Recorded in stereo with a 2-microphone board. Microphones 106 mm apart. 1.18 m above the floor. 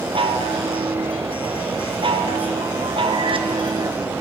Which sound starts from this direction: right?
A chime, at 0.1 s.